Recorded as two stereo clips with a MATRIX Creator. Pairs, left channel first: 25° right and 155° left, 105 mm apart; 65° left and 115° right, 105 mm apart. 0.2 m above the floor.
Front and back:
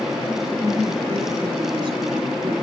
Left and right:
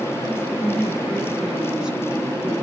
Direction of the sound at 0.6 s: 170° left.